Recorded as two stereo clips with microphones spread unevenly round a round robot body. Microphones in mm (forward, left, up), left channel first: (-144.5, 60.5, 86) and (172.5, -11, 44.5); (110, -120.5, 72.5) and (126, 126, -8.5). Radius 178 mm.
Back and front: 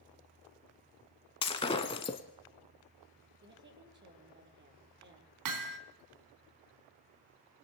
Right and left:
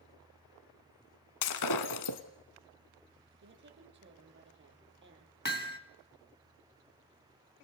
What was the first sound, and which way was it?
Breaking glass, 115° right.